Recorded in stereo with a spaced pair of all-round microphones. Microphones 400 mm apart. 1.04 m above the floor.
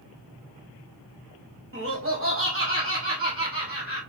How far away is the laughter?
About 0.8 m.